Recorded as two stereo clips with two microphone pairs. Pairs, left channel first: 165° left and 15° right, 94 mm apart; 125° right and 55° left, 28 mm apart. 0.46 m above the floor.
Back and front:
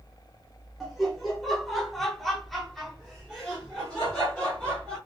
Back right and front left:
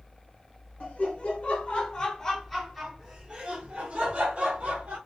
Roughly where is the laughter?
Right.